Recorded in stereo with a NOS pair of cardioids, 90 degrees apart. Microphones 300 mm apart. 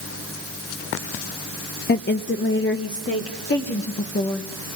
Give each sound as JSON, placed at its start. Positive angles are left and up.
{"t": 1.9, "sound": "a woman speaking", "azimuth_deg": 30, "distance_m": 0.6}